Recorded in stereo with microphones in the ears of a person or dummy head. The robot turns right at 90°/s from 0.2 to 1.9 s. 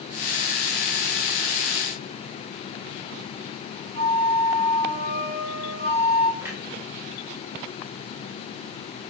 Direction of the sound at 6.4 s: 15° right (ahead or behind).